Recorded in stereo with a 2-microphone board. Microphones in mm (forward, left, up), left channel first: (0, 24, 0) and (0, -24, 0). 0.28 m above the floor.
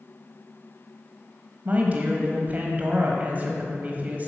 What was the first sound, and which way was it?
A woman speaking, 30° right (ahead or behind).